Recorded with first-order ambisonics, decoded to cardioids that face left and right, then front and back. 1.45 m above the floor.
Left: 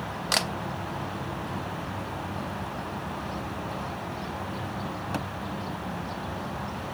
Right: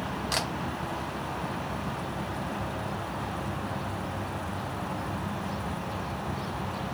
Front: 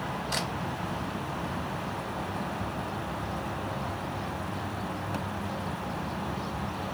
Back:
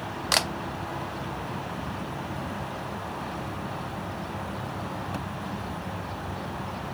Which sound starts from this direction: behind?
A camera shutter, at 0.3 s.